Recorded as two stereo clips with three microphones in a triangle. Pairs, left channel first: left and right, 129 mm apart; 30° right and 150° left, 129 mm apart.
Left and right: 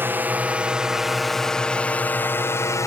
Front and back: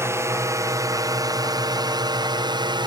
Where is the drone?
155° right; by 2.9 s 135° left.